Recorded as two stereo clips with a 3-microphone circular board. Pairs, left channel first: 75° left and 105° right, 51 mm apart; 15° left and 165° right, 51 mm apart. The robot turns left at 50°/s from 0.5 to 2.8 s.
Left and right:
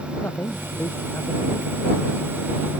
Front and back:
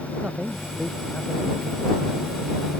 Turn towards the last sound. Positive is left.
turn(degrees=10)